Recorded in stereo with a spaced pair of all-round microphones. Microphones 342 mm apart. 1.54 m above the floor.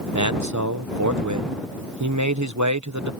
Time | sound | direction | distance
0.1 | a man speaking | 55° right (ahead or behind) | ?